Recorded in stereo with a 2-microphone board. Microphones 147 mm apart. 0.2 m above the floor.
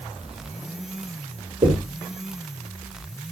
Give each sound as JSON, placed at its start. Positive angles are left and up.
{"t": 1.6, "sound": "knocking", "side_deg": -50, "distance_m": 4.5}